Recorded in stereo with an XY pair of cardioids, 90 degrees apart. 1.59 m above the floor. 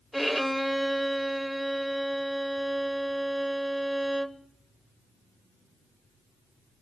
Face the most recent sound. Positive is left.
turn(degrees=0)